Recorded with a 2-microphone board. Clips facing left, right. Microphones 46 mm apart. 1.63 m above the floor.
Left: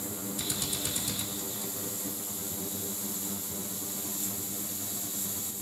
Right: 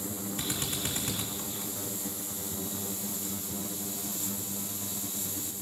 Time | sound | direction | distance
0.4 | a drill | 40° right (ahead or behind) | 5.5 m